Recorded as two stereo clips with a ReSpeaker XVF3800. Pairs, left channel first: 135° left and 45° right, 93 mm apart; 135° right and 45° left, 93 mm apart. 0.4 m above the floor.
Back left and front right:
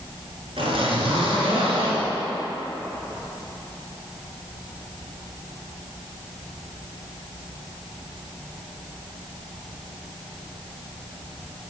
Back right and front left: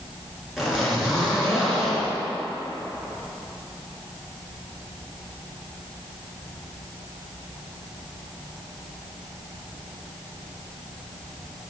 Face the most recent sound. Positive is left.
turn(degrees=-45)